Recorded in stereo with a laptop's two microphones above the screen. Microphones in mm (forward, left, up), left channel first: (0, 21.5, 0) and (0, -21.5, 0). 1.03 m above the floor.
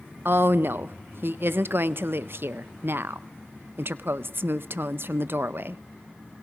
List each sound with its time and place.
0.2 s a woman speaking: 60° right (ahead or behind), 0.6 m